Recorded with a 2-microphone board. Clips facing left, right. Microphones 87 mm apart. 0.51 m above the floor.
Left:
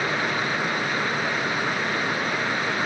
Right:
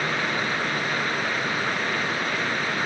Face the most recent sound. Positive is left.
No sound to turn to.